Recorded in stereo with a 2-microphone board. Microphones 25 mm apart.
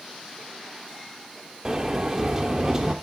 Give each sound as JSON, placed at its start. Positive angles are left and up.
{"t": 1.6, "sound": "a sliding door", "side_deg": -20, "distance_m": 1.4}